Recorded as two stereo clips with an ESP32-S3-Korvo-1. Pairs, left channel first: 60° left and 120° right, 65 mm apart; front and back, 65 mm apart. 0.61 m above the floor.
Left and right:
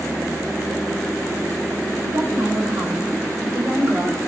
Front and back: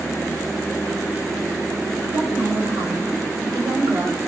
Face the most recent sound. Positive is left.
turn(degrees=180)